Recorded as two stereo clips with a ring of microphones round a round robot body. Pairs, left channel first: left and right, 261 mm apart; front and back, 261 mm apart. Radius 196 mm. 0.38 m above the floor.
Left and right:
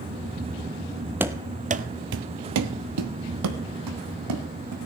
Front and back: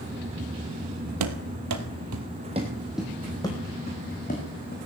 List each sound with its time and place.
1.2 s running footsteps: 175° right, 0.8 m; by 4.8 s 65° right, 1.8 m